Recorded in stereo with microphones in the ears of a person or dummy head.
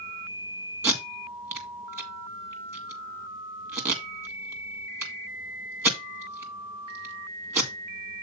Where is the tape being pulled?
15° right (ahead or behind), 2.0 m.